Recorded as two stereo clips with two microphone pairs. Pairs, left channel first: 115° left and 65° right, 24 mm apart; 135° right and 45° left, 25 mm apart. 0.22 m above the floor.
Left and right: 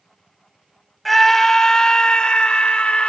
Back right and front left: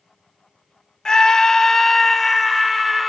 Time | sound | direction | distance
1.1 | a scream | 165° right | 1.2 m